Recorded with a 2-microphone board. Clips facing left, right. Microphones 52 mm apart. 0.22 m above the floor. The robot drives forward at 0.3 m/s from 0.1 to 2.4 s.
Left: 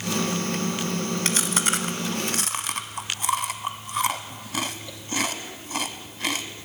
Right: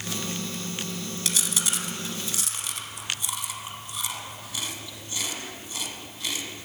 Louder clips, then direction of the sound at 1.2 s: Left 3 dB; 50° left (ahead or behind).